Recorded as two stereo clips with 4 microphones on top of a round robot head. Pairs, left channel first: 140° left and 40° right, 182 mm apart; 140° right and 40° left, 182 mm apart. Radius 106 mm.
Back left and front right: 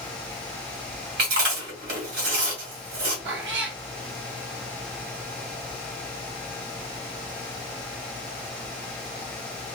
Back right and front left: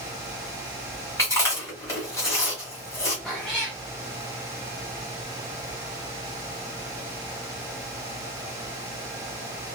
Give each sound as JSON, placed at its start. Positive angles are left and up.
{"t": 1.2, "sound": "chewing", "azimuth_deg": -70, "distance_m": 1.4}
{"t": 3.2, "sound": "a cat meowing", "azimuth_deg": -55, "distance_m": 0.9}